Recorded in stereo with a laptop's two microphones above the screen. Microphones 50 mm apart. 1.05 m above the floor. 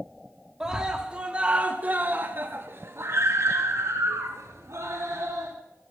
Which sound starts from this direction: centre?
A scream, at 0.6 s.